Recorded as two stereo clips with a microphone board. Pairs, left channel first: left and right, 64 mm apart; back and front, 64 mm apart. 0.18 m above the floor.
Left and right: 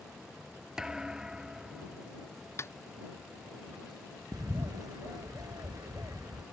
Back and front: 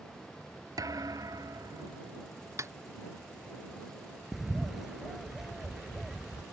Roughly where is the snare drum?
Ahead left.